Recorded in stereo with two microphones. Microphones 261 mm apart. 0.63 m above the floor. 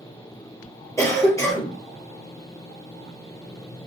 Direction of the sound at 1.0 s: 10° left (ahead or behind).